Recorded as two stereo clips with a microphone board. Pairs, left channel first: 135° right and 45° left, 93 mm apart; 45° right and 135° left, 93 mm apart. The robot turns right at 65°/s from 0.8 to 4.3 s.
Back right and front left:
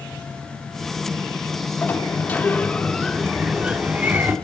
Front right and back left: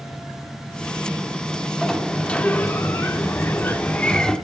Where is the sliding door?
135° right, 0.9 m; by 4.3 s 25° left, 0.9 m.